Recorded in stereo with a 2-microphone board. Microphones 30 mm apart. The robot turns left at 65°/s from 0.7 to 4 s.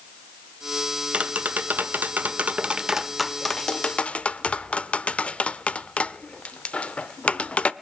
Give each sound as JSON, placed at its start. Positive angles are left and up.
{"t": 1.1, "sound": "tapping", "side_deg": -40, "distance_m": 0.7}